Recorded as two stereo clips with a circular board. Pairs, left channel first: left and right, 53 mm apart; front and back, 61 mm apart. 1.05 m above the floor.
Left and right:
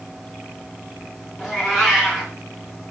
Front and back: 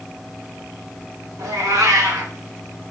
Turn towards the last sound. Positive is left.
turn(degrees=-170)